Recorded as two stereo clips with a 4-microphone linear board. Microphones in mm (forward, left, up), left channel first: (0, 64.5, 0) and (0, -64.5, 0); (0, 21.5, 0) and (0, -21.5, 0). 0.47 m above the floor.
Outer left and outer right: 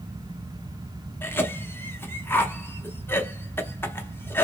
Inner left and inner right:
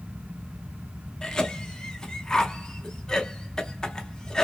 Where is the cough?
15° left (ahead or behind), 0.7 m.